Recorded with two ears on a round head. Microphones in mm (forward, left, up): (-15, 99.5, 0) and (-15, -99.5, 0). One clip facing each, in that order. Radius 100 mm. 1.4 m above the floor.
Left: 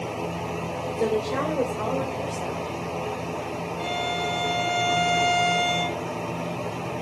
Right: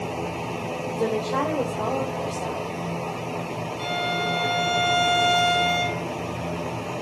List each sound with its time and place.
1.0 s a woman speaking: 10° right (ahead or behind), 5 m; by 2.8 s 5° right (ahead or behind), 6.5 m
3.8 s a violin: 20° right (ahead or behind), 2.5 m